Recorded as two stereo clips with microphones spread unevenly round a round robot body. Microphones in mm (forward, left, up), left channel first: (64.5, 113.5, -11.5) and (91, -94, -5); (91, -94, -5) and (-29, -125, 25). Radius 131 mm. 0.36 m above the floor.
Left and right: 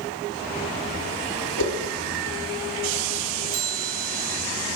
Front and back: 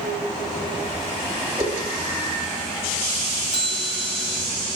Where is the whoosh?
130° left, 7 m.